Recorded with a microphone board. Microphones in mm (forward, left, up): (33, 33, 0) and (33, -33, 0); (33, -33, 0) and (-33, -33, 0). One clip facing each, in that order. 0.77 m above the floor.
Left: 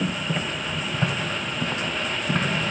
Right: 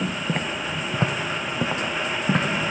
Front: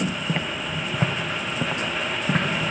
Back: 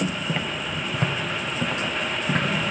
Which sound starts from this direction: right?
Footsteps, at 0.3 s.